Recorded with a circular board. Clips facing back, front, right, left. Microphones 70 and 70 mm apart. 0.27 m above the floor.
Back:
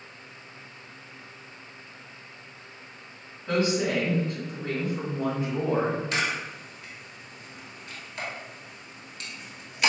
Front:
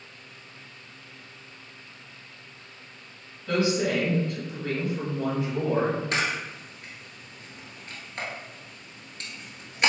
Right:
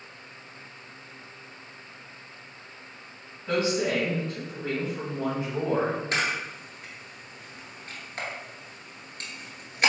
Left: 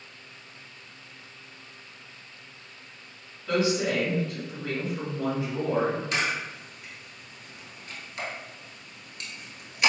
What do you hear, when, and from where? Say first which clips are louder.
3.5 s a woman speaking: front 1 dB, even; 145° right, 1.3 m
6.1 s a camera shutter: front 1 dB, right 1 dB; 45° right, 1.0 m